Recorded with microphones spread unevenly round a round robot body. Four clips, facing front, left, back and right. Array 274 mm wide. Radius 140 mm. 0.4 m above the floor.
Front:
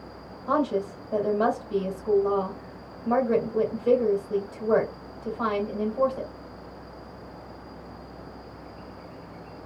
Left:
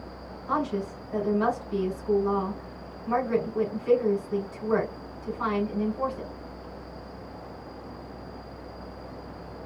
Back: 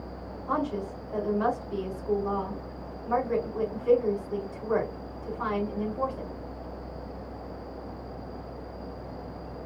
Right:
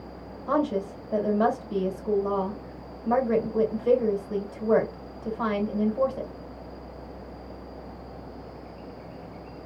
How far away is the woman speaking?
About 2 m.